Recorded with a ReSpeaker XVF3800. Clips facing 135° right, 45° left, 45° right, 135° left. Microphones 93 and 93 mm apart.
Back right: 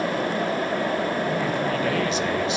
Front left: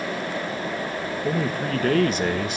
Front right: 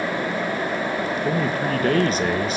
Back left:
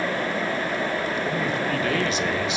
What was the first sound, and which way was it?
A man speaking, 5° left.